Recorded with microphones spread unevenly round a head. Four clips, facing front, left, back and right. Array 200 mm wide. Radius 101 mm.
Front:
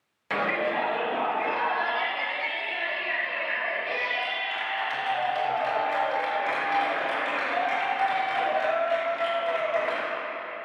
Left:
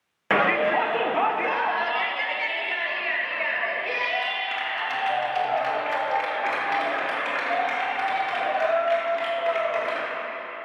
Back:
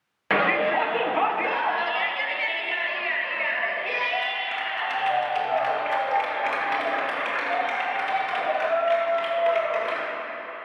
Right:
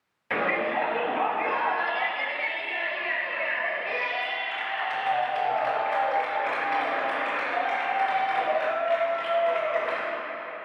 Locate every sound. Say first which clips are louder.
0.3 s a shout: left 5 dB, back 5 dB; 115° left, 1.1 m; by 10.0 s 130° left, 6.5 m